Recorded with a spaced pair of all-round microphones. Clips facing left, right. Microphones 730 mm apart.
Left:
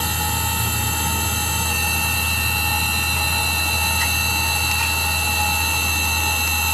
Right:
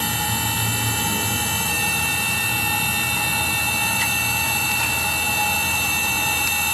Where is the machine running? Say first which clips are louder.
Right 1 dB; 35° left (ahead or behind), 1.6 m.